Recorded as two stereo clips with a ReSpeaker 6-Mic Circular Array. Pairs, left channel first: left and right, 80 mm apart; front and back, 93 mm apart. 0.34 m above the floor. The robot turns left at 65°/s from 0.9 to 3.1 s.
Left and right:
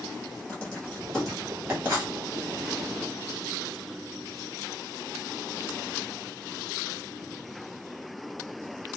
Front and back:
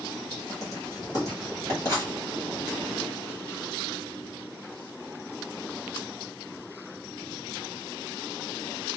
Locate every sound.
0.5 s writing: 30° left, 1.7 m; by 2.1 s 45° right, 1.7 m